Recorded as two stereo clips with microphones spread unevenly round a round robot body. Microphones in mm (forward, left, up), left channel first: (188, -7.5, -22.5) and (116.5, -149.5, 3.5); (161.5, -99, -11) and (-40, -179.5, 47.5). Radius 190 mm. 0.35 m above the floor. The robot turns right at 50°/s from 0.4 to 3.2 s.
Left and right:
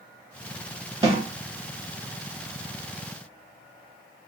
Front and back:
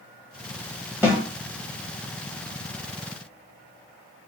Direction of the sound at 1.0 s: 65° right.